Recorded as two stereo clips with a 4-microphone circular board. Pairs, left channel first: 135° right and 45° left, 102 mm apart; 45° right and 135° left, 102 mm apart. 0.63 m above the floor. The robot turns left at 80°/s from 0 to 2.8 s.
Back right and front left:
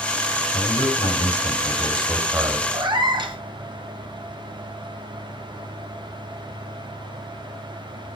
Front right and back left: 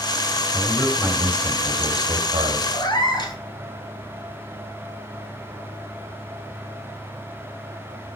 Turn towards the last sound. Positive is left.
turn(degrees=0)